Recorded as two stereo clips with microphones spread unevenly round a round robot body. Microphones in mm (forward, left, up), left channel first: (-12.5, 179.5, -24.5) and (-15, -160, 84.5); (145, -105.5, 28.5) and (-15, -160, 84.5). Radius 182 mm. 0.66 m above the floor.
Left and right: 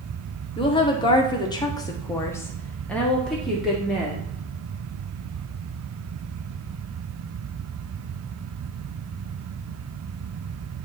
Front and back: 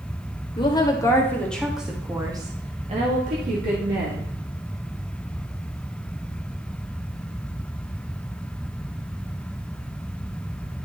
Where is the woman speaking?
40° left, 1.5 m; by 4.3 s 170° left, 1.8 m.